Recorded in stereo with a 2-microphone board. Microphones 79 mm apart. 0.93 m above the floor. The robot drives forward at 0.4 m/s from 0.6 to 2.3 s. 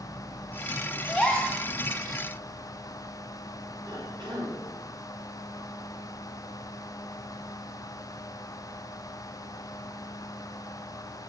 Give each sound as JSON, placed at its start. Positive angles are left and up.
{"t": 1.1, "sound": "a gasp", "side_deg": 15, "distance_m": 0.7}
{"t": 3.9, "sound": "a cough", "side_deg": -75, "distance_m": 3.0}